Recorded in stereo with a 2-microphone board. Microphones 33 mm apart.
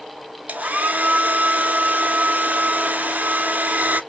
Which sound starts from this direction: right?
A hair dryer, at 0.5 s.